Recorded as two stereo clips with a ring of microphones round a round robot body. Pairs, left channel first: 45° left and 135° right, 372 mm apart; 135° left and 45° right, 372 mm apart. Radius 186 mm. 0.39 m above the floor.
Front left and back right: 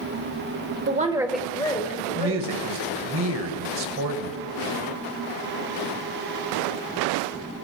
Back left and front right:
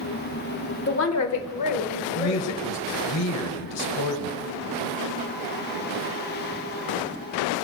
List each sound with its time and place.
0.9 s a woman speaking: straight behind, 1.3 m; by 2.5 s 105° left, 3 m
2.2 s a woman speaking: 175° left, 1.8 m